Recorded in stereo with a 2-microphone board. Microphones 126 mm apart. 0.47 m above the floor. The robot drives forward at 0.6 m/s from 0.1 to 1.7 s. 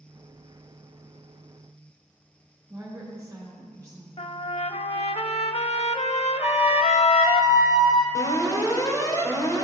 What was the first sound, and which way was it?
A woman speaking, 25° right (ahead or behind).